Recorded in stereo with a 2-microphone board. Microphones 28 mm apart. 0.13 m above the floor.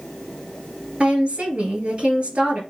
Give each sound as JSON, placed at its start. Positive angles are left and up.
{"t": 1.0, "sound": "a woman speaking", "side_deg": -45, "distance_m": 1.9}